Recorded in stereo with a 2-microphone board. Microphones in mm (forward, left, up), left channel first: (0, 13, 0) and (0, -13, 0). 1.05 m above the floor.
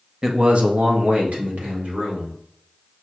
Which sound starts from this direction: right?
A man speaking, at 0.2 s.